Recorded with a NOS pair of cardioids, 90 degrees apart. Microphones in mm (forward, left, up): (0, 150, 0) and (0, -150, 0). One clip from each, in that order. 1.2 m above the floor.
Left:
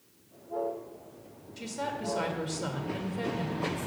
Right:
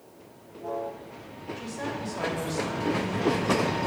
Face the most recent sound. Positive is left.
turn(degrees=45)